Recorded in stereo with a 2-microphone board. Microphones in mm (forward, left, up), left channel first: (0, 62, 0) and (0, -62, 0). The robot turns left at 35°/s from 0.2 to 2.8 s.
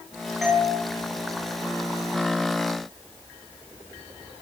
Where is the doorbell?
Centre (ahead or behind), 3.5 m; by 0.7 s 10° right (ahead or behind), 3.5 m.